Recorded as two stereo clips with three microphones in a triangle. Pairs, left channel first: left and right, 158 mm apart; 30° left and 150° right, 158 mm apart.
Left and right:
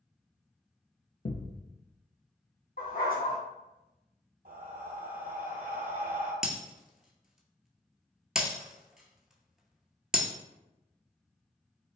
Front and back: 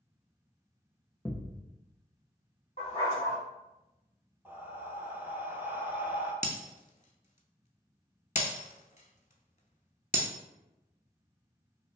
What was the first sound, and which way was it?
A thud, 100° left.